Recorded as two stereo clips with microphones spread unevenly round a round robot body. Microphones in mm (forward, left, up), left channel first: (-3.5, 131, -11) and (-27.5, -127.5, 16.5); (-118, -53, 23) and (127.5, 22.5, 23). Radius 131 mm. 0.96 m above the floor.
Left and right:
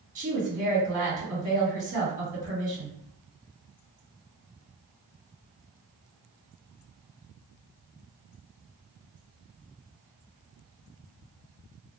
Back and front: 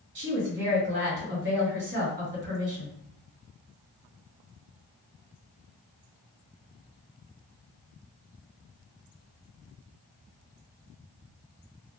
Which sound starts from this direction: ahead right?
A woman speaking, at 0.1 s.